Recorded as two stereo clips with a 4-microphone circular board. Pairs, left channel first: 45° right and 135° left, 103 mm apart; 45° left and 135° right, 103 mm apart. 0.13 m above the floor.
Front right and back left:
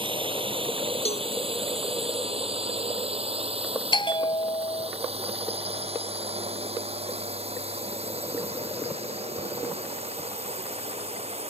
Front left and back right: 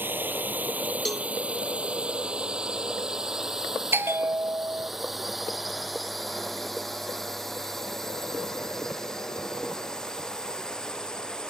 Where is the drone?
155° left; by 11.5 s 130° left.